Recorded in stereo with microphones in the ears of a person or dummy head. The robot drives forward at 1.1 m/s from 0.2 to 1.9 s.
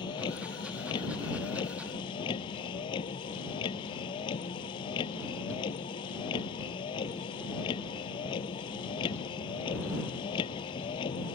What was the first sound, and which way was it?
A vehicle, 25° left (ahead or behind).